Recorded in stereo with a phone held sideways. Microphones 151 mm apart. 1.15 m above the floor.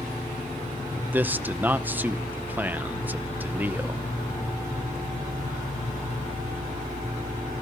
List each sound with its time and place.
0.9 s a man speaking: 10° right (ahead or behind), 0.9 m